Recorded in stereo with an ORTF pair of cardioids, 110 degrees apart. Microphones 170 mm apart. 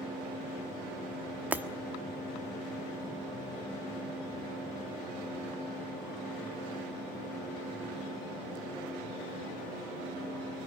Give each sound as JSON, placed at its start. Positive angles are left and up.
{"t": 1.5, "sound": "breaking glass", "azimuth_deg": -10, "distance_m": 1.3}